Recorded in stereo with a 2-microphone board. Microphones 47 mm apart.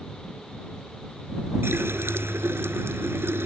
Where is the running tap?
60° right (ahead or behind).